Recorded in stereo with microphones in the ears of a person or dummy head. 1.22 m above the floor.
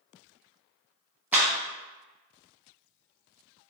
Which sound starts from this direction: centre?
A clap, at 1.3 s.